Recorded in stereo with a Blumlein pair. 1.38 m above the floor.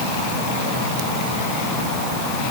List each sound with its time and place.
Only background noise.